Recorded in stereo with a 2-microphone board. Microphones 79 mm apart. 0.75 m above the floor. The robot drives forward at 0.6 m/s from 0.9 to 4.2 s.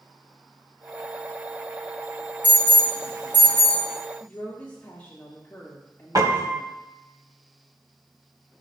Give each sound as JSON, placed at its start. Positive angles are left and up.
{"t": 2.4, "sound": "an alarm", "side_deg": -70, "distance_m": 5.0}
{"t": 4.2, "sound": "a woman speaking", "side_deg": 25, "distance_m": 1.7}
{"t": 6.2, "sound": "a piano", "side_deg": -55, "distance_m": 1.6}